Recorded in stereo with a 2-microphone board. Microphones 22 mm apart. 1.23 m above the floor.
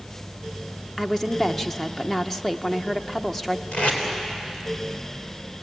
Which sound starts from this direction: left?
Tape being pulled, at 3.7 s.